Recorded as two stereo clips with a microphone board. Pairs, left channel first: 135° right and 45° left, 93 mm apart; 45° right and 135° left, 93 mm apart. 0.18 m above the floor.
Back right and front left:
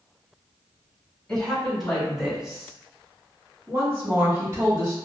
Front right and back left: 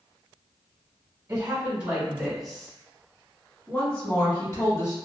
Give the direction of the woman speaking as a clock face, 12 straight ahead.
7 o'clock.